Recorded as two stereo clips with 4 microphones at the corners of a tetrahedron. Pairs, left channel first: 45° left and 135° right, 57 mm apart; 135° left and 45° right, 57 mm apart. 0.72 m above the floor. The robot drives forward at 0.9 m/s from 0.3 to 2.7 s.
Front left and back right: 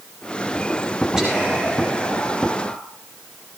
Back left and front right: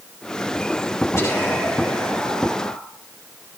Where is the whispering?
145° left, 2.5 m; by 2.8 s 160° left, 3.5 m.